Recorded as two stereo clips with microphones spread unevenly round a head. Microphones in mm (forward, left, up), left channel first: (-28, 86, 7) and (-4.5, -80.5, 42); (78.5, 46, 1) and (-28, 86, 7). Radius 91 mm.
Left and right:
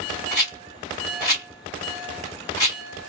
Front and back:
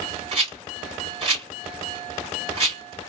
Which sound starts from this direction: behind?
A rattle, at 0.3 s.